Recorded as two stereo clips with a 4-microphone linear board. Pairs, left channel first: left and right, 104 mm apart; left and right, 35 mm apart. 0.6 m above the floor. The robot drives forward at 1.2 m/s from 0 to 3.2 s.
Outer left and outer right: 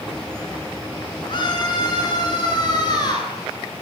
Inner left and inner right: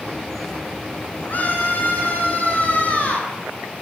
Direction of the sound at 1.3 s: 45° left (ahead or behind).